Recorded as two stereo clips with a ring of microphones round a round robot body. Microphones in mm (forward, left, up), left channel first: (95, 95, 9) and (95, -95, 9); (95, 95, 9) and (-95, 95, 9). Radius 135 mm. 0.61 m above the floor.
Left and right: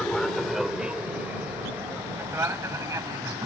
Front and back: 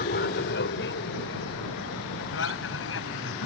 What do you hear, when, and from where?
0.0 s an aircraft: 5° left; by 3.5 s 15° right